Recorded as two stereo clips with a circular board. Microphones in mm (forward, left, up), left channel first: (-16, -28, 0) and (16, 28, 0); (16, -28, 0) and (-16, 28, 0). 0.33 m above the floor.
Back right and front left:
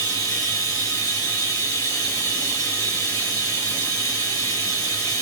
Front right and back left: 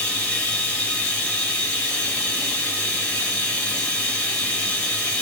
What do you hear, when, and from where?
0.0 s running water: 125° right, 1.1 m